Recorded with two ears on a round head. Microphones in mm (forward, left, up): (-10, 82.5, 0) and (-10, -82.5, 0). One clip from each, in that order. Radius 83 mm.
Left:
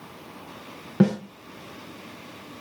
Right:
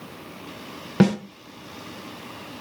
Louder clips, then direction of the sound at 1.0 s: Right 2 dB; 75° right (ahead or behind).